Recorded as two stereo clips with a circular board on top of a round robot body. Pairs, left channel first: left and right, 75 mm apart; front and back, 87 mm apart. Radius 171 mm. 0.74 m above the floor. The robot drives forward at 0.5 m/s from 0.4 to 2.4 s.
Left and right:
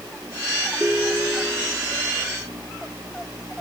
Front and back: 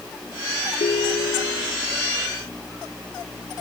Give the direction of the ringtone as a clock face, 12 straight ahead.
12 o'clock.